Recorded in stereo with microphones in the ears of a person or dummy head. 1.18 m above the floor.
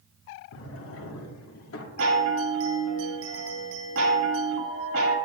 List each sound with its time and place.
0.5 s a drawer: 70° left (ahead or behind), 1.3 m
2.0 s a chime: 80° right, 1.7 m